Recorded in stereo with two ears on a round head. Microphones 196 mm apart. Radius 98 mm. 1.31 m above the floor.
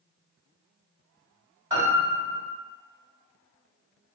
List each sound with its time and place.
1.7 s a piano: 15° right (ahead or behind), 1.6 m